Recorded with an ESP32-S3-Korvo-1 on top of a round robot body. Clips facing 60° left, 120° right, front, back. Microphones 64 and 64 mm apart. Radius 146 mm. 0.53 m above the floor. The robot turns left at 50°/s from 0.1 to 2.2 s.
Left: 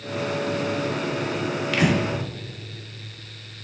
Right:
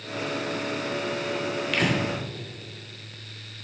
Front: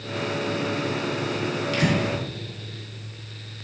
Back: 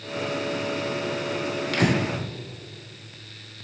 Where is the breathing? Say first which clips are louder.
Left 4 dB, back 1 dB; 145° left, 1.1 m; by 2.0 s 130° left, 1.1 m.